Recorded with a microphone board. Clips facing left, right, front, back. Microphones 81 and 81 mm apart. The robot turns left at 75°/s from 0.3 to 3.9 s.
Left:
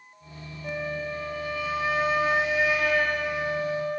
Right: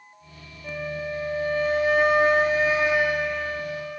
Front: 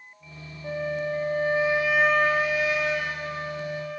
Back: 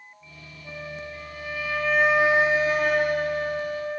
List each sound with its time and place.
0.6 s a flute: 15° left, 0.5 m; by 4.0 s 130° left, 0.5 m